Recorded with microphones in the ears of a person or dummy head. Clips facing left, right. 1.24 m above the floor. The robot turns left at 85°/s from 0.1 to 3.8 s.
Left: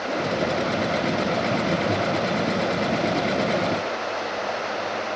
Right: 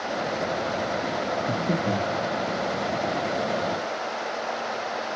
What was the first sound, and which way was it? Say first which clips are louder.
Breathing: left 2 dB; 35° right (ahead or behind).